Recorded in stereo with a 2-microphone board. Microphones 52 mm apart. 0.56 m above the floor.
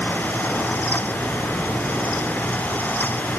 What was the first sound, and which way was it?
Only background noise.